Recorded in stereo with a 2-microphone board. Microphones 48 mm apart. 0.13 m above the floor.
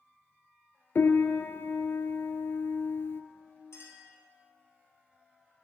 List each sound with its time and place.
0.9 s a piano: 55° left (ahead or behind), 0.5 m
3.7 s a clink: 65° left (ahead or behind), 2.5 m